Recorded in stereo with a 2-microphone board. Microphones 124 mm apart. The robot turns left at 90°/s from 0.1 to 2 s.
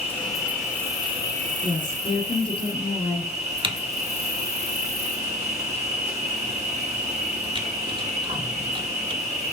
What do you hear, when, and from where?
0.0 s an insect: 50° left, 1.6 m; by 9.5 s 125° right, 1.6 m
1.6 s a woman speaking: 155° left, 2 m; by 3.3 s 120° left, 2 m
3.6 s typing on a keyboard: 40° right (ahead or behind), 0.7 m